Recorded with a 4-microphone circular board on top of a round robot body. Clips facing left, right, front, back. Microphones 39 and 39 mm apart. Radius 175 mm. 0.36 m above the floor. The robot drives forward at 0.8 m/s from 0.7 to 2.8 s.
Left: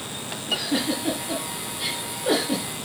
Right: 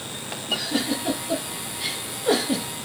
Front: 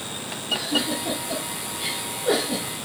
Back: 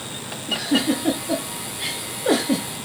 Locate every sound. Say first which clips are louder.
0.5 s a giggle: even, back 4 dB; 165° left, 4.5 m; by 2.7 s 170° left, 6 m